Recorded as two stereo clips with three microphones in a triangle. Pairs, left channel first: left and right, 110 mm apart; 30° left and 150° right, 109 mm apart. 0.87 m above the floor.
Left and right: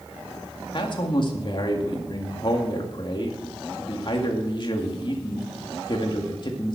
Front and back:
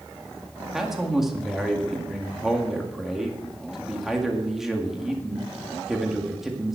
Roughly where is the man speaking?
Behind left.